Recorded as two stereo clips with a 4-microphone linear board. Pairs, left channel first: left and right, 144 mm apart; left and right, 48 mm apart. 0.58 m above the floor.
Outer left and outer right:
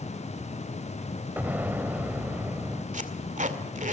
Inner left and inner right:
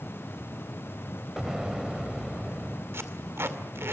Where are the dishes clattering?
I don't hear dishes clattering.